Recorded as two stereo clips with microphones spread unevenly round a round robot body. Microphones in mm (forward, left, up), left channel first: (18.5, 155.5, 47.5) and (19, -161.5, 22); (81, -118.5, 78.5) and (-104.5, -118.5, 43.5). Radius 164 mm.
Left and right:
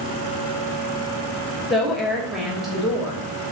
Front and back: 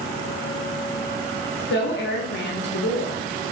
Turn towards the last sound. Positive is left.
turn(degrees=-5)